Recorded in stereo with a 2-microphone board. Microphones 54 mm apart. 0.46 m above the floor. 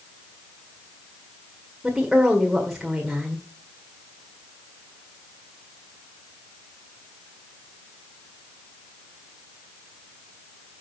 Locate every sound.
1.8 s a woman speaking: 5° right (ahead or behind), 1.7 m